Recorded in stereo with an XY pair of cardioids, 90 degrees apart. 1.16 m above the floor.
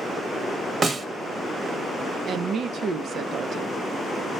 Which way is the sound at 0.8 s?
40° right.